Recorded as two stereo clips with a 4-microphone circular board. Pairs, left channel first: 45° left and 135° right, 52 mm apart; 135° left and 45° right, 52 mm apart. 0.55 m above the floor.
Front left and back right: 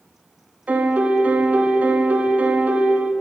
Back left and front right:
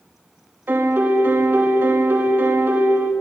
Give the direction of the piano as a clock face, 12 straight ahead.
3 o'clock.